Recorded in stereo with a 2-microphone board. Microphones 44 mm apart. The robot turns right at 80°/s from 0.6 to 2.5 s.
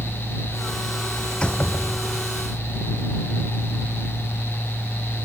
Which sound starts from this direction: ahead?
A door slam, at 1.3 s.